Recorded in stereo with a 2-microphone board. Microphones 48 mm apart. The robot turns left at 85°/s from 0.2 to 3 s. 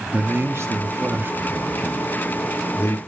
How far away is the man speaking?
About 0.5 m.